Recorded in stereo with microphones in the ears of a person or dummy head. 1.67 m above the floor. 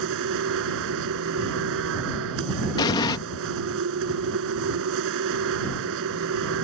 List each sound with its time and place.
0.0 s a machine running: 65° right (ahead or behind)
2.8 s an explosion: 15° left (ahead or behind)